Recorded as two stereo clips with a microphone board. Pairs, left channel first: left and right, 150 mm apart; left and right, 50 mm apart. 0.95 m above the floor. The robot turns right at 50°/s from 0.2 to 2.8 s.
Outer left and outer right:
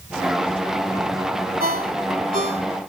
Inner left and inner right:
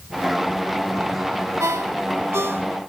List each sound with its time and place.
1.6 s a ringtone: 80° right; by 2.7 s 45° right (ahead or behind)